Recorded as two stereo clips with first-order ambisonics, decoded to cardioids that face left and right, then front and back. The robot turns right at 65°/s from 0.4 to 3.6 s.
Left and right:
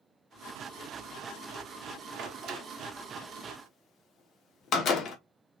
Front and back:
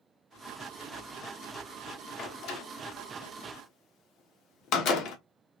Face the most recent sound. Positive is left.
turn(degrees=40)